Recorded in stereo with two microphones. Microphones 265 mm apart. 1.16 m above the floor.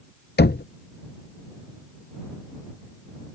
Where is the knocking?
40° left (ahead or behind).